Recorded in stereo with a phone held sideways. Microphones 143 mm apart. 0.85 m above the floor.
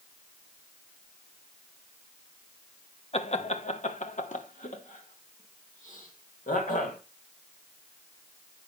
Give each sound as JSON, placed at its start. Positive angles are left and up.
{"t": 3.1, "sound": "laughter", "side_deg": 45, "distance_m": 0.9}